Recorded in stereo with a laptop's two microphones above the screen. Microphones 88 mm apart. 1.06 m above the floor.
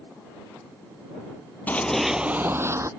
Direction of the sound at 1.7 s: 20° left (ahead or behind).